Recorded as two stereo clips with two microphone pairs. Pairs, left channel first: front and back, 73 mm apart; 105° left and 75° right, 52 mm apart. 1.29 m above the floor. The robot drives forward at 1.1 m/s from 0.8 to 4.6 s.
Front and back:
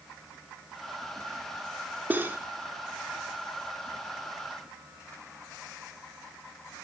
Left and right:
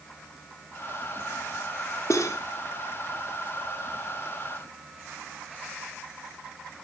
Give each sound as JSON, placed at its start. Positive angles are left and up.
{"t": 2.1, "sound": "cutlery clinking", "azimuth_deg": 115, "distance_m": 2.5}